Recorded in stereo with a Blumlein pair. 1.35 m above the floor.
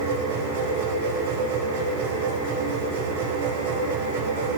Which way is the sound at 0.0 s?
55° right.